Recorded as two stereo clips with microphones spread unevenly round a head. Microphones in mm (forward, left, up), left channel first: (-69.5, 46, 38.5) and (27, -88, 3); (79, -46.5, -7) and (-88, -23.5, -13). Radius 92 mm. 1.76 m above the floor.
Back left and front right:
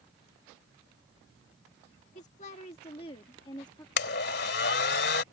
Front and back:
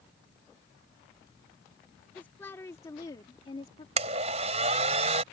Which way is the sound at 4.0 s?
115° left.